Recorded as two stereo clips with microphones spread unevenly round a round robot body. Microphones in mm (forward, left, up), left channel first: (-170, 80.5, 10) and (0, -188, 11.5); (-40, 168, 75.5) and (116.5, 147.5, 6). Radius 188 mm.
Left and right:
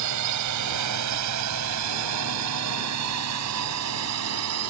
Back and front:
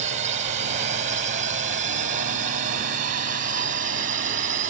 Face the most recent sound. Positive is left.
turn(degrees=-5)